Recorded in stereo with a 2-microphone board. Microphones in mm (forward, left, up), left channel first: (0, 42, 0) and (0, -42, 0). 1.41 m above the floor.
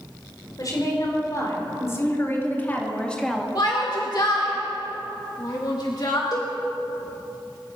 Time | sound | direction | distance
0.6 | a woman speaking | 45° left (ahead or behind) | 4.5 m
3.5 | a shout | 55° left (ahead or behind) | 1.9 m
6.3 | a cowbell | 50° left (ahead or behind) | 4 m